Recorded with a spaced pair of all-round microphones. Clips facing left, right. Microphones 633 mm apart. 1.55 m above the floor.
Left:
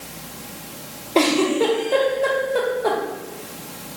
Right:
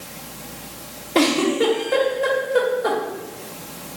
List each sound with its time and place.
1.1 s a giggle: 45° right (ahead or behind), 0.8 m